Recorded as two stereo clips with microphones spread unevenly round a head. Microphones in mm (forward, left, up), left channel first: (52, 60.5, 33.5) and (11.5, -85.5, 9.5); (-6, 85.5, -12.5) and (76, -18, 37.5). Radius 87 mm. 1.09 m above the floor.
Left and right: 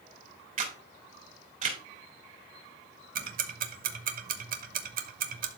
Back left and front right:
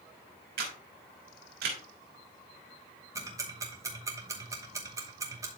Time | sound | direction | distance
0.6 | a camera shutter | 65° right | 3.5 m
3.1 | ticking | 130° right | 0.9 m